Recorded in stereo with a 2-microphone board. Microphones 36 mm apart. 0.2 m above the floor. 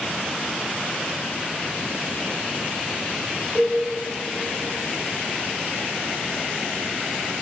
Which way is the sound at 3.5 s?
20° right (ahead or behind).